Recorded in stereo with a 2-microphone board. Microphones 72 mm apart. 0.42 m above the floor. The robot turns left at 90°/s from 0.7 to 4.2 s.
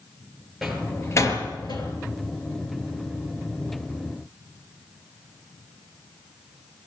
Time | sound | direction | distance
0.6 | a door slam | centre (ahead or behind) | 5.5 m